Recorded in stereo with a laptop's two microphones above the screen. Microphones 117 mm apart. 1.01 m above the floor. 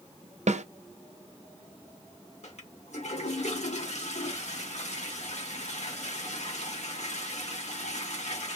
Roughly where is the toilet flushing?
Left.